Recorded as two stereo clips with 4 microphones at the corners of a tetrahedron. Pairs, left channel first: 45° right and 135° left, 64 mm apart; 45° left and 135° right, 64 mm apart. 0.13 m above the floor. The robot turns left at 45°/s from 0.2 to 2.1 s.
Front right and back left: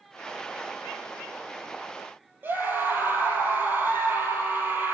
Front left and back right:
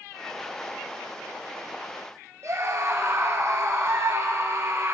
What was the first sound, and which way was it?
A scream, 170° right.